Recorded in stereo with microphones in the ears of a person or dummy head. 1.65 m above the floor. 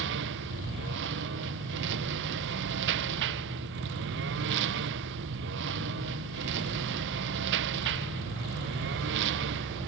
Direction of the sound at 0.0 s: 70° right (ahead or behind).